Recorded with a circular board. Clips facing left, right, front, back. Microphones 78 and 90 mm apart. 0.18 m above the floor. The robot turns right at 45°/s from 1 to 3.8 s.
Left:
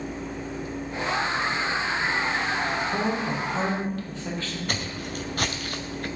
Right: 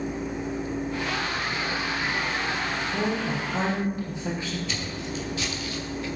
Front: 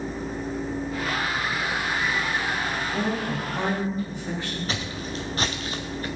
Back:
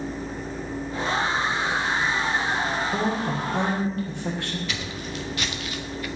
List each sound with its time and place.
2.9 s a woman speaking: 155° left, 5.5 m; by 4.6 s 165° right, 5.5 m
4.7 s footsteps: 55° left, 2 m